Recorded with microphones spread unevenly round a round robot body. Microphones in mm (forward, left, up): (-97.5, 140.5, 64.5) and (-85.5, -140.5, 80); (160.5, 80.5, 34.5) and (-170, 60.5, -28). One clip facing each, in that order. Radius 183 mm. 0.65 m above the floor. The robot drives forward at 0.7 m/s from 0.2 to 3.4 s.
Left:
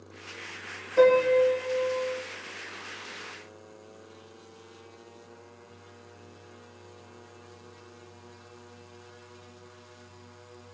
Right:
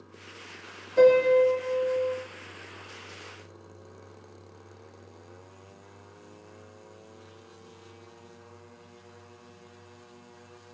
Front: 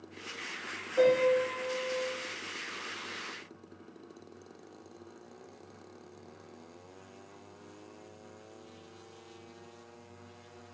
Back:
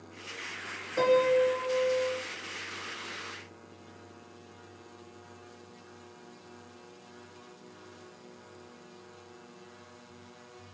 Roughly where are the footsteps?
No footsteps in this recording.